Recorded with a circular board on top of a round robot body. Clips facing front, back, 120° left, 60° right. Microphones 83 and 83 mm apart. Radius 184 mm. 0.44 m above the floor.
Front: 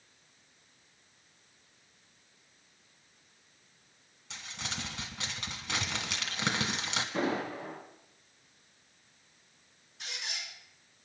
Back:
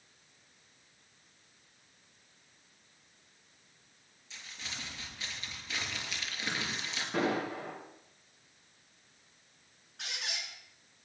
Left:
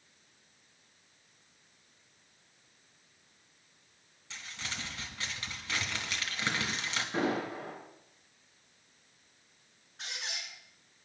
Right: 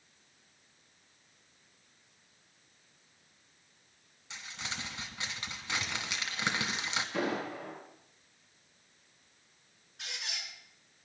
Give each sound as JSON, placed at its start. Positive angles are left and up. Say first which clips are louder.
{"t": 4.3, "sound": "crumpling", "louder": "front 5 dB, even", "azimuth_deg": 15, "distance_m": 2.0}
{"t": 7.1, "sound": "an explosion", "louder": "back 2 dB, left 3 dB", "azimuth_deg": 170, "distance_m": 8.5}
{"t": 10.0, "sound": "a squeak", "louder": "back 1 dB, left 1 dB", "azimuth_deg": 175, "distance_m": 5.0}